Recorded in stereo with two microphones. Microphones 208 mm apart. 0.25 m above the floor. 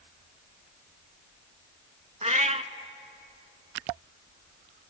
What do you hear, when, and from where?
2.2 s a cat meowing: 35° right (ahead or behind), 0.6 m